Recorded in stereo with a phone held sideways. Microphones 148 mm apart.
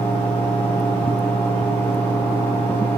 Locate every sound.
0.0 s a fan: 10° left (ahead or behind), 4.5 m